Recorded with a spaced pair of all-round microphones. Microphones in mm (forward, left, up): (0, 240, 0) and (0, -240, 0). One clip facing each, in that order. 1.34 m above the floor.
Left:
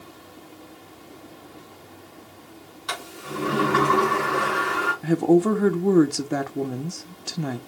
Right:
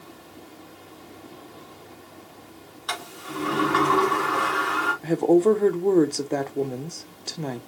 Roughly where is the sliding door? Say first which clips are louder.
Left 1 dB; left.